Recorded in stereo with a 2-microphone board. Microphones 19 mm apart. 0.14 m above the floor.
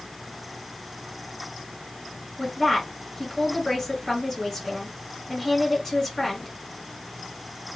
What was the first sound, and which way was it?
A woman speaking, 10° left (ahead or behind).